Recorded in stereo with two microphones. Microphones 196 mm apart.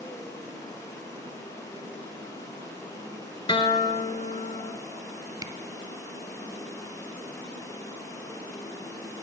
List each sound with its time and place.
0.0 s running water: 15° left (ahead or behind), 2 m
3.5 s a guitar: 25° left (ahead or behind), 0.5 m
5.4 s a camera shutter: 20° right (ahead or behind), 0.6 m